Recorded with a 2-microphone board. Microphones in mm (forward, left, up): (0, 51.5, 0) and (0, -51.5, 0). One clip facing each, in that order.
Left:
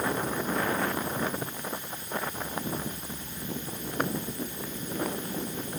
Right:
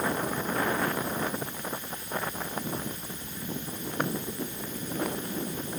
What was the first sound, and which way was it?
Only background noise.